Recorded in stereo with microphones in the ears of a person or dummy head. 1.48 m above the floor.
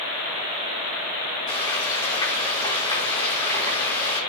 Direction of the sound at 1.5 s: 20° left (ahead or behind).